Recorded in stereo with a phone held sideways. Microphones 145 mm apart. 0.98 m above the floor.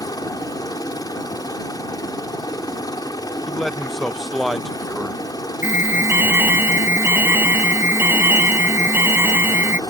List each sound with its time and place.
0.0 s a helicopter: 25° left (ahead or behind)
3.5 s a man speaking: centre (ahead or behind)
5.6 s an alarm: 15° right (ahead or behind)